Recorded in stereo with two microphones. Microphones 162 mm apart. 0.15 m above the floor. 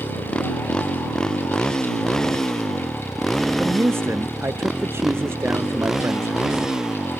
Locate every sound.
0.0 s a motorcycle: 5° left (ahead or behind); by 7.2 s 5° right (ahead or behind)
3.6 s a man speaking: 15° right (ahead or behind)